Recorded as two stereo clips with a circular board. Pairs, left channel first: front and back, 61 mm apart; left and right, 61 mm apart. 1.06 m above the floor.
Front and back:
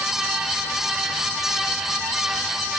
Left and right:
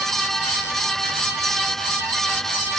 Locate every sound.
Only background noise.